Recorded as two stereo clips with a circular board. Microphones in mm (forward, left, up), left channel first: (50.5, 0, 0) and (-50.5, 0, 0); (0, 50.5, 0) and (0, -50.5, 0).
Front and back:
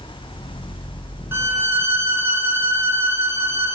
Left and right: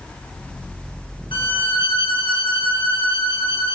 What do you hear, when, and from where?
1.3 s a violin: 115° left, 0.7 m